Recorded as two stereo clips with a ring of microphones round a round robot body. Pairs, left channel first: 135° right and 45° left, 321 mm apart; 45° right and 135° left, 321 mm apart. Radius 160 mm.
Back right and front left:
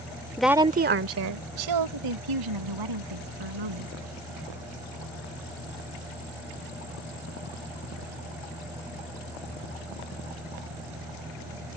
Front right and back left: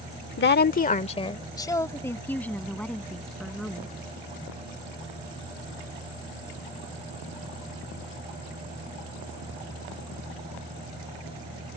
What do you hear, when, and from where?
0.4 s a woman speaking: 55° right; by 3.9 s 45° left